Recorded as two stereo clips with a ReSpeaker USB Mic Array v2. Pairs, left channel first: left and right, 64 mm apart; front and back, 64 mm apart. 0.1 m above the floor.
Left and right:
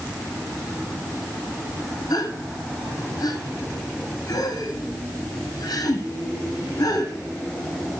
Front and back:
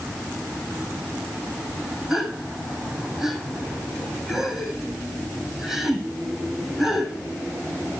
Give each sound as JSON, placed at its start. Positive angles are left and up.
{"t": 2.1, "sound": "a gasp", "azimuth_deg": 95, "distance_m": 3.0}